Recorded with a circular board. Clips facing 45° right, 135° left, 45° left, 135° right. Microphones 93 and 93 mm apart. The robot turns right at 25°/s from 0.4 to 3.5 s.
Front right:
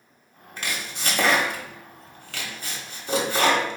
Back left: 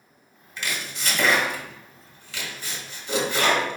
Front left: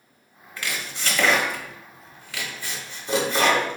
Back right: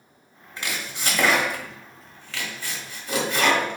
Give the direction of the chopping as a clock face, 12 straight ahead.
2 o'clock.